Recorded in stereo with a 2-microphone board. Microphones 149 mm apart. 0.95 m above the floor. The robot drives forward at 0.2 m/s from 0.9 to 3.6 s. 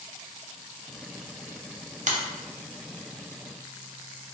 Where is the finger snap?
55° right (ahead or behind), 0.5 m.